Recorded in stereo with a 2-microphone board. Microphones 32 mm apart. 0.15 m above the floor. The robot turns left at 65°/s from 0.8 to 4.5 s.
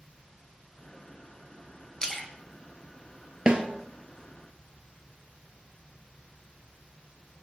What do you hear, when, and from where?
2.0 s a splash: 20° left (ahead or behind), 0.5 m; by 2.3 s 5° left (ahead or behind), 0.5 m
3.5 s a snare drum: 30° right (ahead or behind), 0.5 m; by 3.6 s 40° right (ahead or behind), 0.5 m